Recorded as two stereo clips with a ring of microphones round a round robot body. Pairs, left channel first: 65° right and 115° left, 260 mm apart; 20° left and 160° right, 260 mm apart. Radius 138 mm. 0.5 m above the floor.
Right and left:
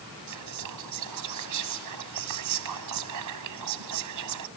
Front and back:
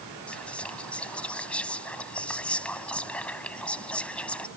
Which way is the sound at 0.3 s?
110° left.